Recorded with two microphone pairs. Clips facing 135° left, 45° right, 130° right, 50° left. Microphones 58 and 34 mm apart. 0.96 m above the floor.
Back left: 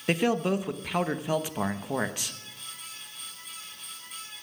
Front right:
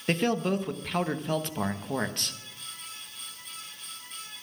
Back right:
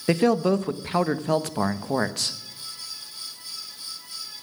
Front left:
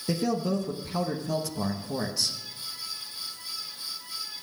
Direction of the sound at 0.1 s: 140° right.